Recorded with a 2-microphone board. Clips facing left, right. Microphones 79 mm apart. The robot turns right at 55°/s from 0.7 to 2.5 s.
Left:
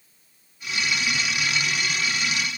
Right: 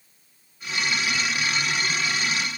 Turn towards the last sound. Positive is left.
No sound to turn to.